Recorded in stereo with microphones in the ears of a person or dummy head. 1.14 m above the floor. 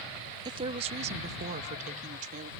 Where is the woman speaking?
25° right (ahead or behind); by 2.5 s 40° right (ahead or behind).